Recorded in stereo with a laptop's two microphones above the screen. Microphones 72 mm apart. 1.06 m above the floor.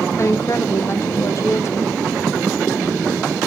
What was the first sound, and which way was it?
A woman speaking, 40° left (ahead or behind).